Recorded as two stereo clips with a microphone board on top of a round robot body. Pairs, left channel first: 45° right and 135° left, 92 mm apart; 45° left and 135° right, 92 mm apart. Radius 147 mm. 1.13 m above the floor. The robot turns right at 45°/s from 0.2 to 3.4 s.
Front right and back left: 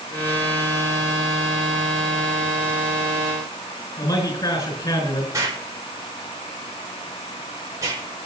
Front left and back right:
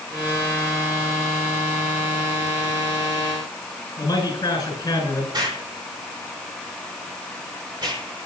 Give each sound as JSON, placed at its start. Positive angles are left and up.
{"t": 4.0, "sound": "a man speaking", "azimuth_deg": -5, "distance_m": 7.5}
{"t": 5.3, "sound": "an explosion", "azimuth_deg": -170, "distance_m": 5.0}